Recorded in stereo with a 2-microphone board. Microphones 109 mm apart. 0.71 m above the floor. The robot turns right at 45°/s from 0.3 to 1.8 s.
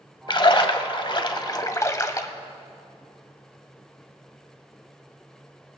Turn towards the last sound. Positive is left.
turn(degrees=140)